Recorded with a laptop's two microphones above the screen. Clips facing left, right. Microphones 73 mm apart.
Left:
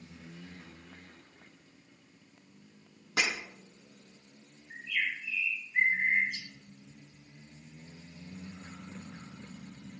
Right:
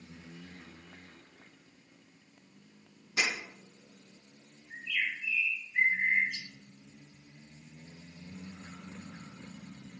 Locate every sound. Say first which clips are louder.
3.2 s breaking glass: left 1 dB; 65° left (ahead or behind), 5.5 m
4.7 s a bird: left 1 dB; 35° left (ahead or behind), 5 m